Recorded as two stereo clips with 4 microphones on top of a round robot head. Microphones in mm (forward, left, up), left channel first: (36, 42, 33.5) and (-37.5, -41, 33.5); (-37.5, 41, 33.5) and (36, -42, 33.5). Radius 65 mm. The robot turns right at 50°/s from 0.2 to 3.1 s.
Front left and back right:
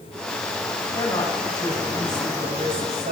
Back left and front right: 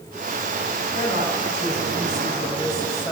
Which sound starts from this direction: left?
A woman speaking, at 0.9 s.